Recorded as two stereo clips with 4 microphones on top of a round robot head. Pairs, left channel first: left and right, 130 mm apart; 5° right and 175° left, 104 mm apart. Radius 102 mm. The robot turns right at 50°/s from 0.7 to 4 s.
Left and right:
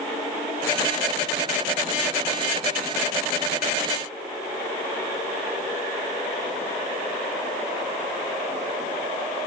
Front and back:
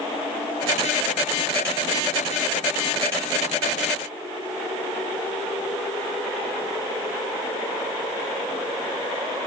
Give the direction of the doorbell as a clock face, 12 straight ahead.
I don't hear a doorbell.